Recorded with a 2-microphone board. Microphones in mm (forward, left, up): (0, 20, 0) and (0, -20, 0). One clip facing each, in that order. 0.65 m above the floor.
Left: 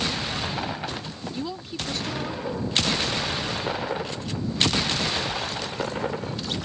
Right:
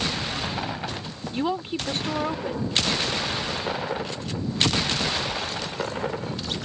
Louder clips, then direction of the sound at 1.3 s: Right 8 dB; 40° right (ahead or behind).